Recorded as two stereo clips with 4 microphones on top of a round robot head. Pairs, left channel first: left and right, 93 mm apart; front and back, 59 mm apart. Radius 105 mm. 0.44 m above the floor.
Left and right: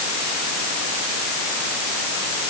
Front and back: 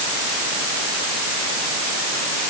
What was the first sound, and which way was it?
Only background noise.